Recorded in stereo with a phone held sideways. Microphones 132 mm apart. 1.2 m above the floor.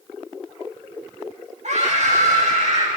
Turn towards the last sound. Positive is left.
turn(degrees=-60)  # may be behind; listen again after turning